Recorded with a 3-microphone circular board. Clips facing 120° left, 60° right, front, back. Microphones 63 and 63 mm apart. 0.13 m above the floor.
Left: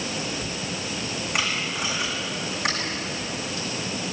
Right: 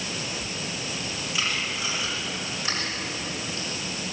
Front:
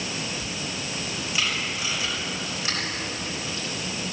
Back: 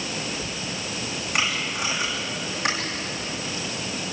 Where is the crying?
No crying in this recording.